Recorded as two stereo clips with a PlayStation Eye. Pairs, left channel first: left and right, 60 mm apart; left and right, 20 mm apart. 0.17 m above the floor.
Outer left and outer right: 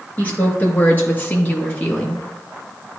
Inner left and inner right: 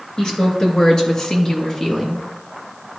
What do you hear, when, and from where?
0.2 s a woman speaking: 30° left (ahead or behind), 3 m; by 2.3 s 20° left (ahead or behind), 1.5 m